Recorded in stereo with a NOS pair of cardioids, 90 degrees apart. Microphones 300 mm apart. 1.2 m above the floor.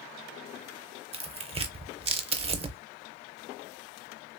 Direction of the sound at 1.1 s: 20° right.